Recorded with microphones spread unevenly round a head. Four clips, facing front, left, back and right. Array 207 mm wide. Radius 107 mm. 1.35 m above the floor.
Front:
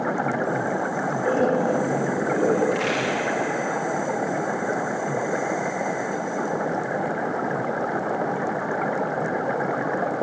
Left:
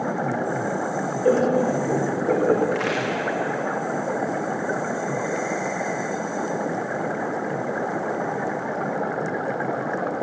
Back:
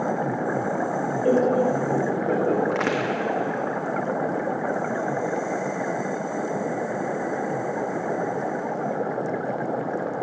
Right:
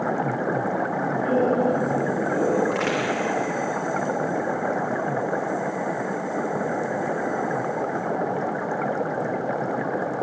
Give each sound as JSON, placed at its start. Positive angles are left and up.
{"t": 1.2, "sound": "laughter", "azimuth_deg": 120, "distance_m": 5.5}
{"t": 2.7, "sound": "a crack", "azimuth_deg": 170, "distance_m": 3.5}